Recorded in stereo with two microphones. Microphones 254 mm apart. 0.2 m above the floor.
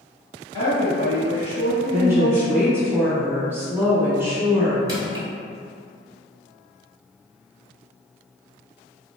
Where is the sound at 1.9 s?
10° right (ahead or behind), 1.0 m.